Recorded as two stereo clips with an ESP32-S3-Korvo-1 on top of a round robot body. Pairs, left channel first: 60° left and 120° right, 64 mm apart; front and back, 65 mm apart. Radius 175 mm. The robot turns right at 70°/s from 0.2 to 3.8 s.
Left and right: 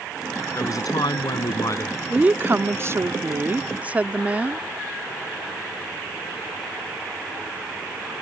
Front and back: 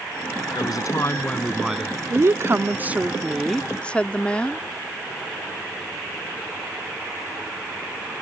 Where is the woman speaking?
175° left; by 4.6 s 65° right.